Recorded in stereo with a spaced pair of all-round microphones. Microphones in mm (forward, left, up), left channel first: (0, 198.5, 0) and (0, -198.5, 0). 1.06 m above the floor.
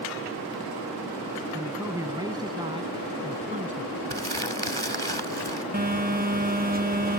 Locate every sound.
1.5 s a man speaking: 5° right (ahead or behind); by 3.9 s 20° right (ahead or behind)
4.1 s crumpling: 85° right
5.7 s a phone buzzing: 20° right (ahead or behind)